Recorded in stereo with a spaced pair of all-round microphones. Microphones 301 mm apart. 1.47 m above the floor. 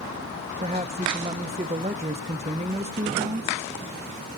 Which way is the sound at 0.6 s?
20° right (ahead or behind).